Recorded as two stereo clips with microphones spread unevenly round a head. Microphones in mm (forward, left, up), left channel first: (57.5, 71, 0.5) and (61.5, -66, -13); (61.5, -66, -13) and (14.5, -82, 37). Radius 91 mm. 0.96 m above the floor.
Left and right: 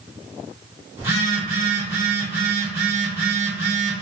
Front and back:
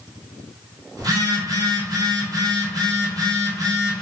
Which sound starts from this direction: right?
A phone buzzing, at 1.0 s.